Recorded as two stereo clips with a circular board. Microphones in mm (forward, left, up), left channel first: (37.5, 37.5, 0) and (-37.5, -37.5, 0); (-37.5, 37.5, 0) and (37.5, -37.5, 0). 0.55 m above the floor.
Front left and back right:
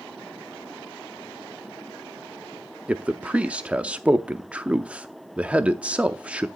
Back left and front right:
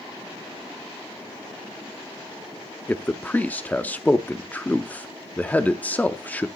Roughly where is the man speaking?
Behind.